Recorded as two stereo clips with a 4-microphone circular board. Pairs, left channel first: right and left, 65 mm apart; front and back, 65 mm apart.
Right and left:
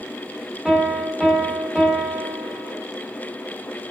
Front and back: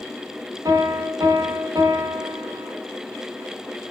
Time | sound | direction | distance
0.7 | a piano | 170° left | 1.6 m